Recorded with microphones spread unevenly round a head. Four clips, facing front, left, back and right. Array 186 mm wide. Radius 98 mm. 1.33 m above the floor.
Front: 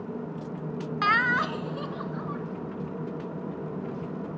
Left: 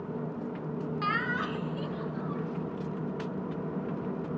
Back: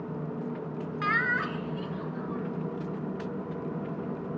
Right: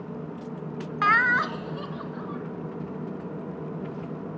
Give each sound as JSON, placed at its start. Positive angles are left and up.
{"t": 1.0, "sound": "laughter", "azimuth_deg": -50, "distance_m": 0.5}